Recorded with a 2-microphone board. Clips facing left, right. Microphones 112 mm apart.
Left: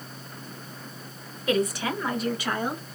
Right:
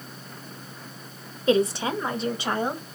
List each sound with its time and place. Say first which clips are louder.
1.5 s a woman speaking: right 4 dB; 25° right (ahead or behind), 1.0 m